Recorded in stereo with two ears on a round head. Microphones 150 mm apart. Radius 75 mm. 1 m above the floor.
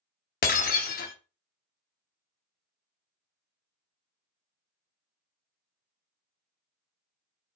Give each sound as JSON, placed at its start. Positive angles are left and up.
{"t": 0.4, "sound": "breaking glass", "side_deg": 55, "distance_m": 0.8}